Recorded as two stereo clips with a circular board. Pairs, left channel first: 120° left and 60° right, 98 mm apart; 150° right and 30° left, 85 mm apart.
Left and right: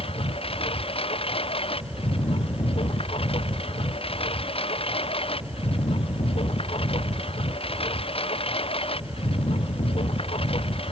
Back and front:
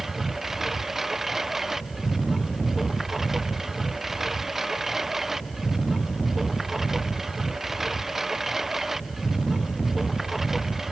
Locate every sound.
0.0 s a lawn mower: 115° left